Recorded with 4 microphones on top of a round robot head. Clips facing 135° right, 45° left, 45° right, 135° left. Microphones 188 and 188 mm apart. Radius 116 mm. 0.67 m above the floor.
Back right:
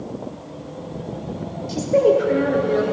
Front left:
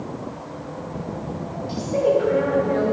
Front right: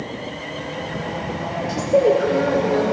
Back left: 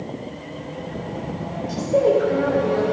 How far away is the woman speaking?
About 3 m.